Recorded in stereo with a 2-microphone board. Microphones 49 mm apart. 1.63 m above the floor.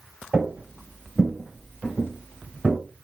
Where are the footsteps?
20° right (ahead or behind), 1.7 m; by 2.8 s 20° left (ahead or behind), 1.7 m.